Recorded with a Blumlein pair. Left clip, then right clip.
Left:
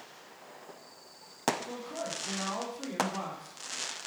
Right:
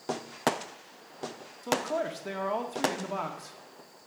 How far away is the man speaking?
About 1.6 m.